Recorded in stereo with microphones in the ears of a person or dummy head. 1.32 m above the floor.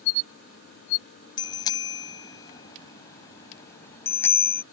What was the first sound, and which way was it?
A bicycle bell, 30° left (ahead or behind).